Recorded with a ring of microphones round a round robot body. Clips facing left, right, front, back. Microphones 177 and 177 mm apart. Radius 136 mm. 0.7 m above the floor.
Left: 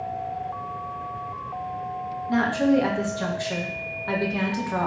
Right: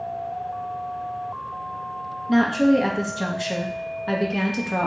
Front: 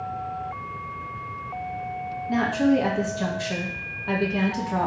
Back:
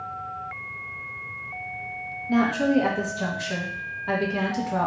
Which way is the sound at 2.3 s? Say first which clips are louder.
Right 3 dB, even; 90° right.